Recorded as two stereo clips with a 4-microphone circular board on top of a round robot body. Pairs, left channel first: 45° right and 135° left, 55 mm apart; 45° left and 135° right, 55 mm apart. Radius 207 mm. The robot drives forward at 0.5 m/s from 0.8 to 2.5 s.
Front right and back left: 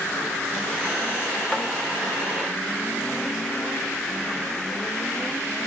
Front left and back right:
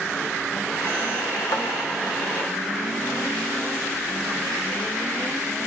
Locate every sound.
1.5 s tapping: 35° left, 0.8 m; by 1.7 s 40° left, 0.7 m